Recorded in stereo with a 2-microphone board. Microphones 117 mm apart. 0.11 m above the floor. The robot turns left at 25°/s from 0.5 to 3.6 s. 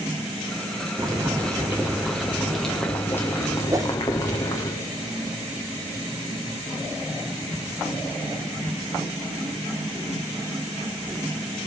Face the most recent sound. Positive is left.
turn(degrees=-30)  # may be behind; listen again after turning